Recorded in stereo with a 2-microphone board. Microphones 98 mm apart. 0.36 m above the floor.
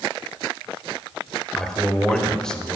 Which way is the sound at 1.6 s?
5° left (ahead or behind).